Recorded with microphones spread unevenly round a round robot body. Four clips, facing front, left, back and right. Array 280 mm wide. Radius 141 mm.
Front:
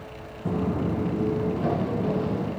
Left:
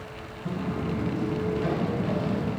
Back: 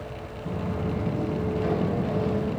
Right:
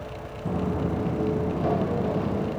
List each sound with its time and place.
0.5 s footsteps: 15° right, 1.2 m; by 2.5 s 25° right, 3 m